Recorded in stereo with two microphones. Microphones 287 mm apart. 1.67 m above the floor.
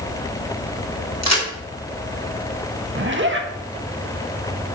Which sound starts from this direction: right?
A zipper, at 3.0 s.